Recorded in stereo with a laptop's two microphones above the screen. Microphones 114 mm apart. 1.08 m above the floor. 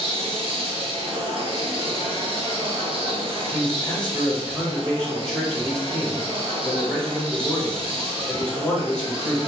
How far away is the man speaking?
About 1.6 m.